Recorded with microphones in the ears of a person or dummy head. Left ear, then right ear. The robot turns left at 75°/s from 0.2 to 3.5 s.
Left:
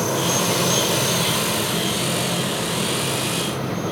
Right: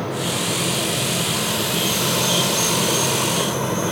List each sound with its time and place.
0.0 s an insect: 110° left; by 3.9 s 135° right